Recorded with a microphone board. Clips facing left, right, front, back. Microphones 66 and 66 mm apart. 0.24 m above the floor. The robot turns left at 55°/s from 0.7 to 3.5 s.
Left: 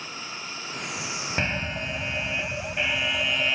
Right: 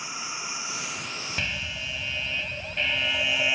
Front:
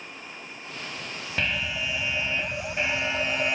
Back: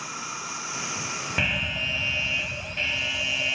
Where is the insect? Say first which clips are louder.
Right 2 dB, back 7 dB; 165° right; by 3.5 s 40° left.